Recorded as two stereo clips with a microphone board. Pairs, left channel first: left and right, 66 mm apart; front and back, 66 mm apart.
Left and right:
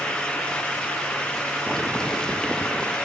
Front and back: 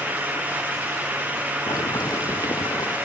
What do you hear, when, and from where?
1.7 s boiling: 10° left